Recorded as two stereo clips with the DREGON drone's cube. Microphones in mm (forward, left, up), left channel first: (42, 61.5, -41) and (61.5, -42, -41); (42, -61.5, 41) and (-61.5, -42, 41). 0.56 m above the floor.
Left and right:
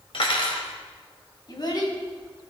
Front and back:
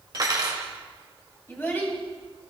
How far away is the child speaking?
About 3 m.